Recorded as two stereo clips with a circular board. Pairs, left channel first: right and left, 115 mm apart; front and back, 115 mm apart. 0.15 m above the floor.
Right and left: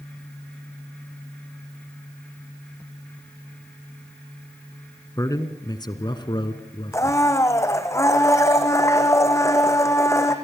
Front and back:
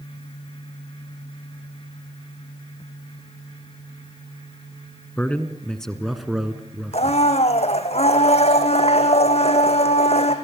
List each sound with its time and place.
5.2 s a man speaking: 65° right, 1.6 m; by 7.2 s 105° right, 2 m
6.9 s a blender: 25° right, 2 m